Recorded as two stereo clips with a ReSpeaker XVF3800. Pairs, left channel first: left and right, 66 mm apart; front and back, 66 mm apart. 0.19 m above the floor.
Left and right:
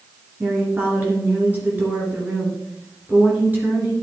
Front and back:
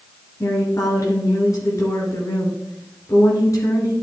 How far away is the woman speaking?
About 2.5 m.